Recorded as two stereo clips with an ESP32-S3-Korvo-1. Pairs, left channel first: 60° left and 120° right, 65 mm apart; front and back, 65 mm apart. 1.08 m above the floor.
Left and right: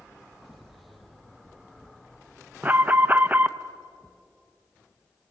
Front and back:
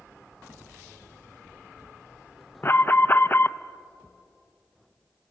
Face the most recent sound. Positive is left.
turn(degrees=-55)